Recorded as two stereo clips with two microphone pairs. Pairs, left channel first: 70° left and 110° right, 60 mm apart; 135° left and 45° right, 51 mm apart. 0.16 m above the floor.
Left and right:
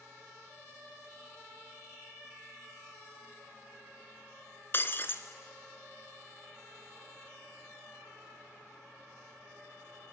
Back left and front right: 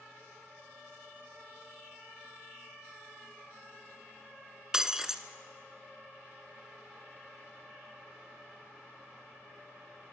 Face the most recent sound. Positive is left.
turn(degrees=30)